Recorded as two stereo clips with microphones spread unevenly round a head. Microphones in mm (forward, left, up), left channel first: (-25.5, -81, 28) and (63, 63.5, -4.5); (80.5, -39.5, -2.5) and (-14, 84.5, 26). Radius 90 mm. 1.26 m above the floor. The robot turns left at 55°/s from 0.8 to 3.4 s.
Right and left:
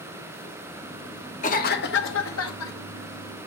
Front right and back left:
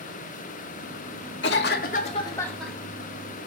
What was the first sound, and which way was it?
A cough, 75° right.